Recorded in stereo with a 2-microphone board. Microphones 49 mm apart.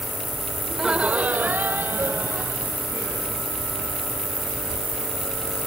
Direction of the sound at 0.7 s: 10° right (ahead or behind).